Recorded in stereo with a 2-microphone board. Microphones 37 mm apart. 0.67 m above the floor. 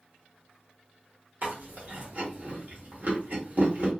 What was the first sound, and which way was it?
Chewing, 50° right (ahead or behind).